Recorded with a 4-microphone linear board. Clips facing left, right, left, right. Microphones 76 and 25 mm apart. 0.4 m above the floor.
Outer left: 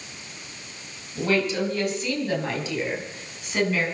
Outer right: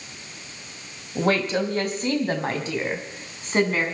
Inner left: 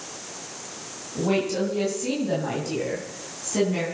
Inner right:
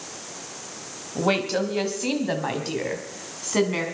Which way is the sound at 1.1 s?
50° right (ahead or behind).